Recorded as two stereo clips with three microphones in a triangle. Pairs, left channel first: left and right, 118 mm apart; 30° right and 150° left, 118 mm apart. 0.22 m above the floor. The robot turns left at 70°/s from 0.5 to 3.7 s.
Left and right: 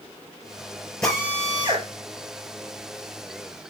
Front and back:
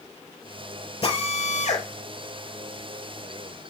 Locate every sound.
1.0 s a drill: 5° left, 4.5 m; by 1.9 s 50° right, 4.5 m